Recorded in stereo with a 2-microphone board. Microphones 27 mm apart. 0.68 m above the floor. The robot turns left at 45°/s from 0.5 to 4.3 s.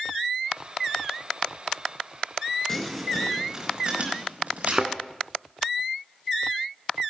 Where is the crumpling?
10° left (ahead or behind), 5 m; by 4.9 s 60° right (ahead or behind), 5 m.